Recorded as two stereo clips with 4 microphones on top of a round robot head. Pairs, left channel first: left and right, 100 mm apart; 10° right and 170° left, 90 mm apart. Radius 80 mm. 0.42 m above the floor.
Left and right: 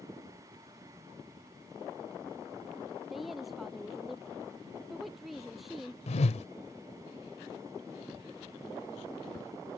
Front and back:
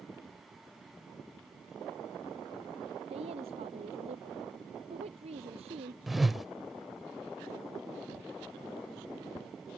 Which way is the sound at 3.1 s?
Straight behind.